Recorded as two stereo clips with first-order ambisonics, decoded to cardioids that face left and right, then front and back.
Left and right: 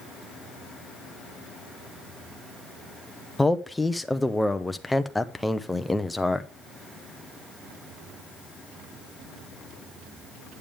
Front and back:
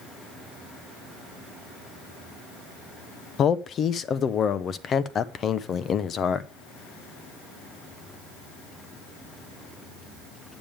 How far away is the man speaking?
About 0.5 m.